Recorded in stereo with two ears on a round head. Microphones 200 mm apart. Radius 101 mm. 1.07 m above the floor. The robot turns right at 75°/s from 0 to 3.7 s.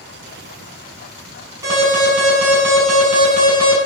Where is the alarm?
165° right, 6.5 m; by 3.8 s 10° right, 6.5 m.